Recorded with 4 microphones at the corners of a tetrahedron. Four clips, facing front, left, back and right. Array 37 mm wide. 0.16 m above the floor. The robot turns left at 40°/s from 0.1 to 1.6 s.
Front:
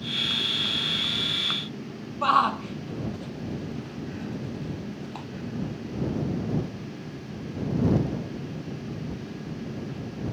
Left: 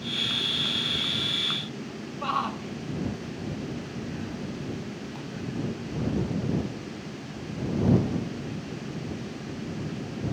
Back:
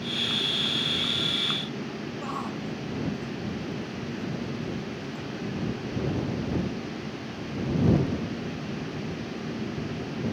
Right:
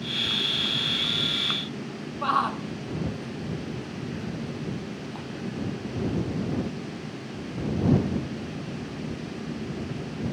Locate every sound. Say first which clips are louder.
2.2 s a shout: right 4 dB, front 14 dB; 10° right